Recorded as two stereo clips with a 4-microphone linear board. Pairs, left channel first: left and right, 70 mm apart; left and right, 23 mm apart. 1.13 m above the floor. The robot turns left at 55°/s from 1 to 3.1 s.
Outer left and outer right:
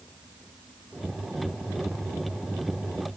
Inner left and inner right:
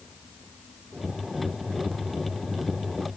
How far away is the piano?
I don't hear a piano.